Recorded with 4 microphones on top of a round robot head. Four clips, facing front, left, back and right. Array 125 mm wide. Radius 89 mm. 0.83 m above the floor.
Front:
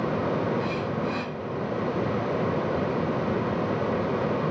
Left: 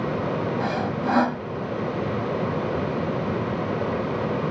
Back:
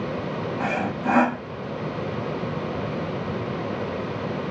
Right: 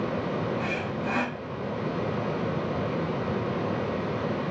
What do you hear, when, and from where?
0.6 s sawing: 145° left